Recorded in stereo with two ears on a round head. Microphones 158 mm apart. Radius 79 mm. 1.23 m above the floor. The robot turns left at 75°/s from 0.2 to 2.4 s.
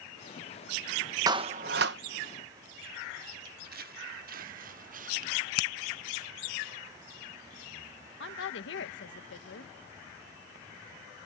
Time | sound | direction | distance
1.3 | a clap | 20° right | ?
3.5 | footsteps | 55° right (ahead or behind) | ?
5.6 | a finger snap | 60° left (ahead or behind) | ?
8.2 | a woman speaking | 70° left (ahead or behind) | ?